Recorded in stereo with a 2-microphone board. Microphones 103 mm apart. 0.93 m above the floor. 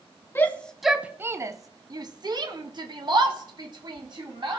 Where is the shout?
20° left (ahead or behind), 0.7 m; by 4.6 s 50° right (ahead or behind), 2.5 m.